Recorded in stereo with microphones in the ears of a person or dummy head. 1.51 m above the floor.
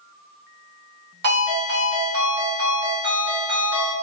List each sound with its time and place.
1.2 s a ringtone: 65° right (ahead or behind), 1.5 m